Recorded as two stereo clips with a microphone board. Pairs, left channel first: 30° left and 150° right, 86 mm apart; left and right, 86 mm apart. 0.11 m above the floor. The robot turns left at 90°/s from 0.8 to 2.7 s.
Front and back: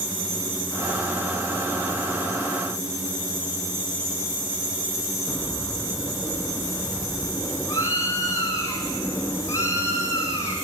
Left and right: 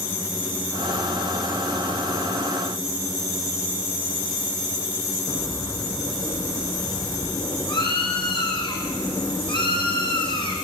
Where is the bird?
85° left, 5 m.